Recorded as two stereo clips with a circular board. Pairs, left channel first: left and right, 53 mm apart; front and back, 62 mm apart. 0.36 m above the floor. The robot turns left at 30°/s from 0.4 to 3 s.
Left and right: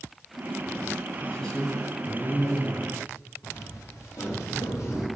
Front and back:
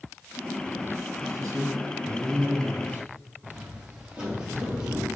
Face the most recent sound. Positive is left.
turn(degrees=110)